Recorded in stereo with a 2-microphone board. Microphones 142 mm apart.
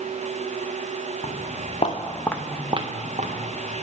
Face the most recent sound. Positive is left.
turn(degrees=-65)  # may be behind; listen again after turning